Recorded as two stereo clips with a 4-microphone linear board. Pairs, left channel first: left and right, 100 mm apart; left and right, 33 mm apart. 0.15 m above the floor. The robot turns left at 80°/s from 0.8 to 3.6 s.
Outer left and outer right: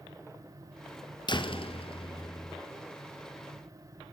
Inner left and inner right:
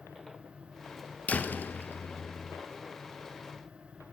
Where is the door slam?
125° left, 1.7 m; by 2.6 s 20° left, 1.7 m.